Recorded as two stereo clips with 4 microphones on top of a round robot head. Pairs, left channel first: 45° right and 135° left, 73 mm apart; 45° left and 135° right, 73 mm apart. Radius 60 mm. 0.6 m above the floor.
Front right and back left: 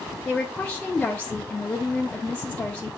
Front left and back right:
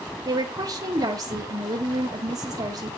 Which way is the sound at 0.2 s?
115° right.